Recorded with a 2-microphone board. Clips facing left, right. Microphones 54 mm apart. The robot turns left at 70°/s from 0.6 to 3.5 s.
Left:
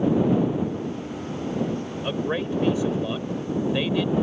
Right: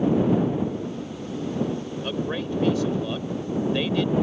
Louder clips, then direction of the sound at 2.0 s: Left 2 dB; 15° left (ahead or behind).